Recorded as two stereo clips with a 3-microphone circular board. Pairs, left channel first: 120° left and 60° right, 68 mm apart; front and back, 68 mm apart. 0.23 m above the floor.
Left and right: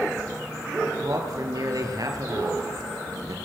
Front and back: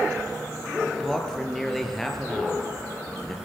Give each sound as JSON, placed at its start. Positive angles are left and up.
{"t": 0.9, "sound": "a man speaking", "azimuth_deg": -85, "distance_m": 4.5}